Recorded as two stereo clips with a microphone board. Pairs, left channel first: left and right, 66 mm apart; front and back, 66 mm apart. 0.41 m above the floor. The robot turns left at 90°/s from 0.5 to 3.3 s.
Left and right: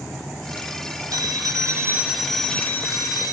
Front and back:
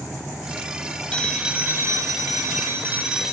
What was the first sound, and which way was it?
A phone ringing, 70° right.